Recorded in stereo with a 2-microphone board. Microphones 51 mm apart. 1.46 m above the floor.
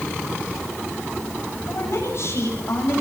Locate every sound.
1.7 s a woman speaking: 55° left (ahead or behind), 9.5 m